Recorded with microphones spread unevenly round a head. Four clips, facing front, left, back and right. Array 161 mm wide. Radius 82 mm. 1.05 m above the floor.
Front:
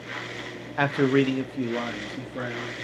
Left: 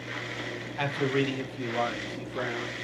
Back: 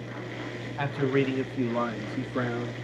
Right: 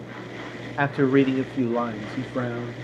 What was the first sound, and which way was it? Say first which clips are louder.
A man speaking: right 8 dB, front 5 dB; 45° right.